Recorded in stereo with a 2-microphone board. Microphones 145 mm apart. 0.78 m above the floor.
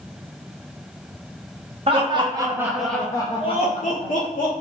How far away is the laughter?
About 0.9 m.